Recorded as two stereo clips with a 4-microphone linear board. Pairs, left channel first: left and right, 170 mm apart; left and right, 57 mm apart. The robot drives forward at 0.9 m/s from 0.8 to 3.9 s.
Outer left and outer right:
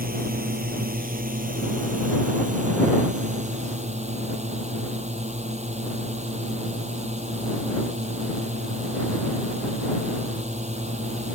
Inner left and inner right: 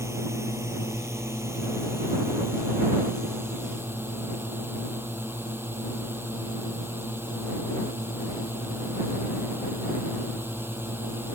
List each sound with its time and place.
0.0 s a drone: 60° right (ahead or behind); by 11.4 s 40° right (ahead or behind)